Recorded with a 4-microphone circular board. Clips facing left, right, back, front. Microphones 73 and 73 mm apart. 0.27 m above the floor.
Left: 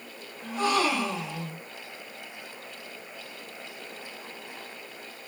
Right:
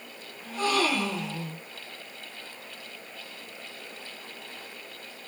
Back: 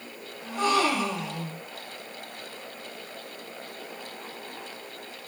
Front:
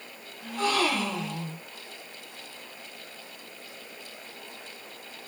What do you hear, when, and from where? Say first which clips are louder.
0.4 s a gasp: left 1 dB, back 2 dB; 130° left, 1.5 m